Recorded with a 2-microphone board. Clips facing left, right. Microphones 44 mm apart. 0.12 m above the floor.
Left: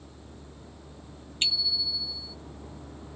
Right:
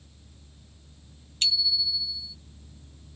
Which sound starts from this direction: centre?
A bicycle bell, at 1.4 s.